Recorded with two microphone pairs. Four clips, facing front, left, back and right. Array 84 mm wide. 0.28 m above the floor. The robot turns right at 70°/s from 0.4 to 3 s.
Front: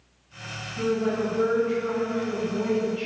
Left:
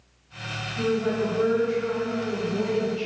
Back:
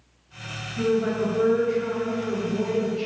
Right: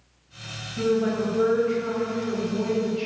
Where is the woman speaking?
120° right, 1.2 m; by 3.1 s 35° left, 1.2 m.